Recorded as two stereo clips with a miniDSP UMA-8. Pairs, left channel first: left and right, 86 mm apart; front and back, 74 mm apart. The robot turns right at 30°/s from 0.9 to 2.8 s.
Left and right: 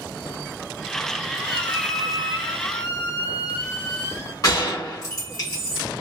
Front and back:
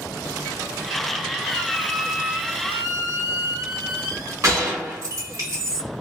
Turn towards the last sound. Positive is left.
turn(degrees=135)